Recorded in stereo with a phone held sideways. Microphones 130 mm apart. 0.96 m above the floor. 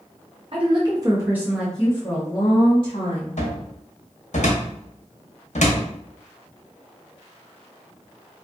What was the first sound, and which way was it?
A woman speaking, 45° right (ahead or behind).